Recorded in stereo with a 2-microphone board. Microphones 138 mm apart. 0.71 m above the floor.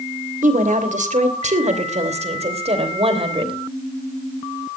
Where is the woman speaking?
70° right (ahead or behind), 3 m; by 3.5 s 40° right (ahead or behind), 3 m.